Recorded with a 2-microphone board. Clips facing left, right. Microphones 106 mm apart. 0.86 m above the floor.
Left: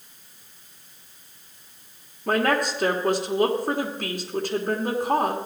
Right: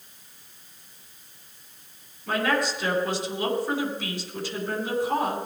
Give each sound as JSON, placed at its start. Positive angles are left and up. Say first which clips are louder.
{"t": 2.3, "sound": "a woman speaking", "louder": "left 3 dB", "side_deg": 55, "distance_m": 2.5}